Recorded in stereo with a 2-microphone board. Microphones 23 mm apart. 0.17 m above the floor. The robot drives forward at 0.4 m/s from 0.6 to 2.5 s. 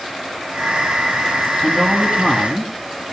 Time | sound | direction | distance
1.6 | a man speaking | 30° left (ahead or behind) | 1.4 m